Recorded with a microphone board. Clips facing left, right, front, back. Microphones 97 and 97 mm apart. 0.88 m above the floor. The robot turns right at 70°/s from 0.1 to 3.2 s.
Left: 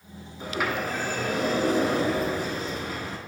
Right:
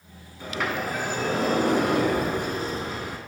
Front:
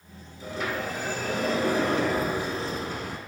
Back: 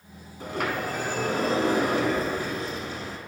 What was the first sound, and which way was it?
A sliding door, 155° left.